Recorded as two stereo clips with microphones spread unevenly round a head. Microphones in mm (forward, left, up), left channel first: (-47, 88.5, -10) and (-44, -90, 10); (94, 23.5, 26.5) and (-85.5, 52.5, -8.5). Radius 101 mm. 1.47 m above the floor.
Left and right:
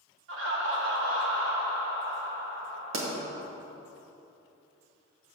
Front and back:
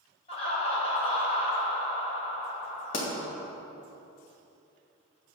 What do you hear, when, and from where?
0.3 s laughter: 70° right, 1.6 m
2.9 s a pop: 65° right, 1.6 m